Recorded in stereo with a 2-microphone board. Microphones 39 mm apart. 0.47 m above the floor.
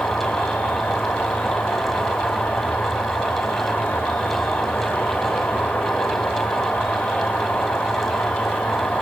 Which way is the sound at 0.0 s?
40° left (ahead or behind).